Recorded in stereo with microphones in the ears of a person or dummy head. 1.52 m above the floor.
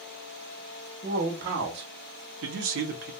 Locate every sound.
1.0 s a man speaking: 45° right (ahead or behind), 1.2 m; by 3.1 s 60° right (ahead or behind), 0.8 m